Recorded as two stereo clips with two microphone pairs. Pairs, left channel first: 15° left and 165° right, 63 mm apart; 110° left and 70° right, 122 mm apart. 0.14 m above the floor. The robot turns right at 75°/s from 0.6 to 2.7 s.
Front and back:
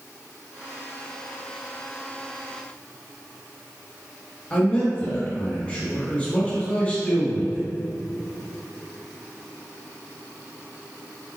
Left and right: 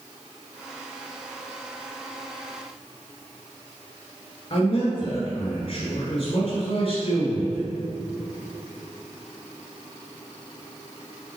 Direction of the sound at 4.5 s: 80° left.